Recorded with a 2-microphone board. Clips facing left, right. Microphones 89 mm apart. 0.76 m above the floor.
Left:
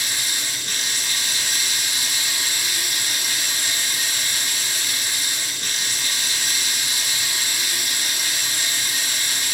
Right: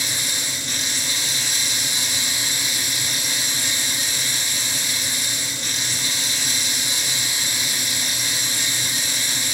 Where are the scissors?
I don't hear scissors.